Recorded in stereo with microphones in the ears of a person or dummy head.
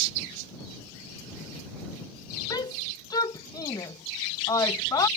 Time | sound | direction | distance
2.5 | a shout | 20° left (ahead or behind) | ?